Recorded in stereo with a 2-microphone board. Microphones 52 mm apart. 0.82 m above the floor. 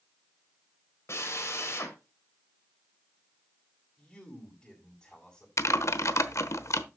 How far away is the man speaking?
About 6.5 m.